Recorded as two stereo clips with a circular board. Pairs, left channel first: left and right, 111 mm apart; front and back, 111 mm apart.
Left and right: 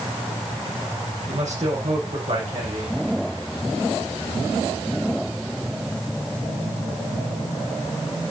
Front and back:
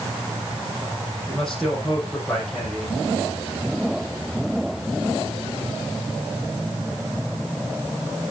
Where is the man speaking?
85° right, 5.5 m.